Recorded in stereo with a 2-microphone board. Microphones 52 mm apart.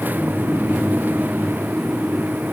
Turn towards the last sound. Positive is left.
No sound to turn to.